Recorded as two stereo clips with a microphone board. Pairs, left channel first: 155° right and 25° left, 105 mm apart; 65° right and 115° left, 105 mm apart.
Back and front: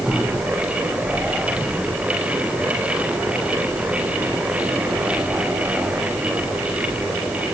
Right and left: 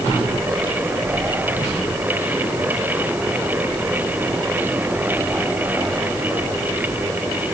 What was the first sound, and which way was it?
Only background noise.